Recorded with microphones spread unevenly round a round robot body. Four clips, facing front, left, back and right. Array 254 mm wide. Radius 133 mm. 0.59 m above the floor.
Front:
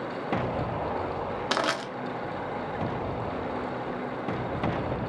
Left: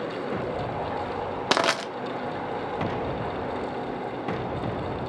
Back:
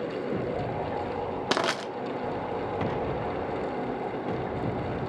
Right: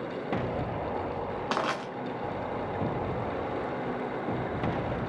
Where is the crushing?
125° left, 0.6 m.